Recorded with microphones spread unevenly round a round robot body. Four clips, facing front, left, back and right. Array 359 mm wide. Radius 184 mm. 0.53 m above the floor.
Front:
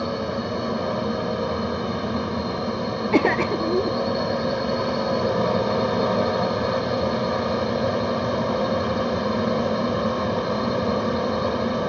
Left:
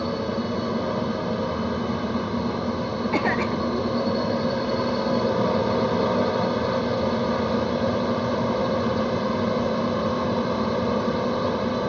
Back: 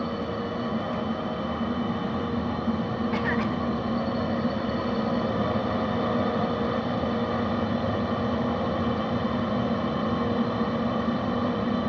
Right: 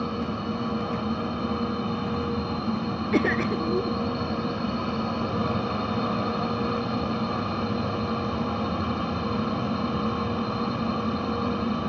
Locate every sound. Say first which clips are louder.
0.0 s a drone: left 3 dB, front 3 dB; 45° left
3.1 s a cough: right 1 dB, front 10 dB; 10° right